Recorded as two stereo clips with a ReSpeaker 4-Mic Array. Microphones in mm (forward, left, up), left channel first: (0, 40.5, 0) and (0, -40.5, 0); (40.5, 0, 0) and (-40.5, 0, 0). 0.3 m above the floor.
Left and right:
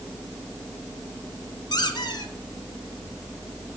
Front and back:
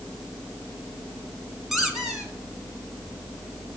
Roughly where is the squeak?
Left.